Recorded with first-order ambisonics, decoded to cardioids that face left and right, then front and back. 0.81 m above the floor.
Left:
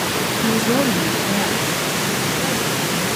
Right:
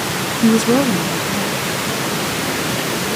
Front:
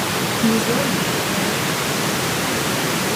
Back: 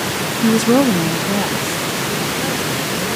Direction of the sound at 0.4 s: 105° right.